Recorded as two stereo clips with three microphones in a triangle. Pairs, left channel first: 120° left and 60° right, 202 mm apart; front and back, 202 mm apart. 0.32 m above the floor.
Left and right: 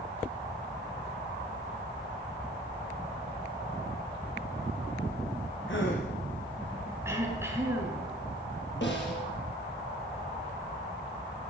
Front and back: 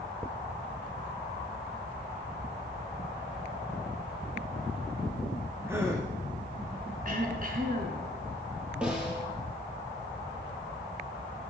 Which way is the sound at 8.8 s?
95° left.